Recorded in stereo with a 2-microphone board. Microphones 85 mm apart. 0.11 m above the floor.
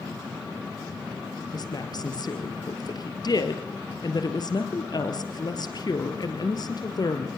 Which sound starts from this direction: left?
A woman speaking, at 1.5 s.